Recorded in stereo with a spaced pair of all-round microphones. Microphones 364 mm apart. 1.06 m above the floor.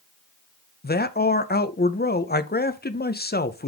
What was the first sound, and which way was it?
A man speaking, 25° left (ahead or behind).